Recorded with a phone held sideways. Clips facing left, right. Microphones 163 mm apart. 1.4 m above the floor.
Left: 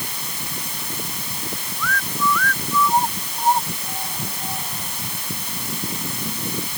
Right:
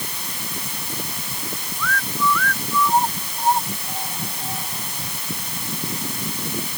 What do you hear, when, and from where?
Only background noise.